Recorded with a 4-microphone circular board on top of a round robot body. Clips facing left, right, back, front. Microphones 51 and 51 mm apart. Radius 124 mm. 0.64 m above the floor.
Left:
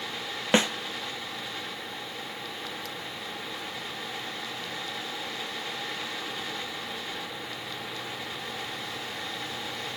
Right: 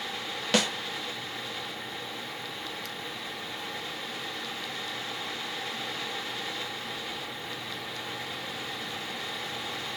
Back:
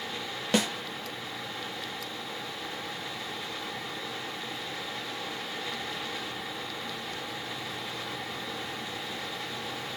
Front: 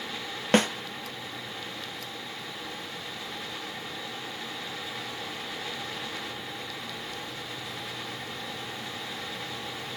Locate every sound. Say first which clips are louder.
0.5 s a snare drum: left 3 dB, front 5 dB; 30° left, 1.6 m